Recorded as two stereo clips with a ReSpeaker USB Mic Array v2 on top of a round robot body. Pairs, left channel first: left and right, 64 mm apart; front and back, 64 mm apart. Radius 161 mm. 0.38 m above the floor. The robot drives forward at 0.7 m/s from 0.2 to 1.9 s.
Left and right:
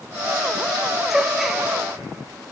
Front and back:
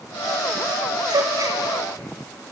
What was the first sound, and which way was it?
A gasp, 175° right.